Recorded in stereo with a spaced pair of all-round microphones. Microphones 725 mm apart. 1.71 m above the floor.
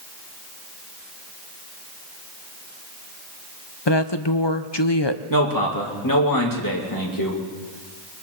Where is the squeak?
No squeak in this recording.